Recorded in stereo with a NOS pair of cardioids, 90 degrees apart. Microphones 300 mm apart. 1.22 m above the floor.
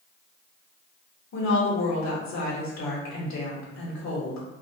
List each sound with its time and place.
1.3 s a woman speaking: 65° left, 2.0 m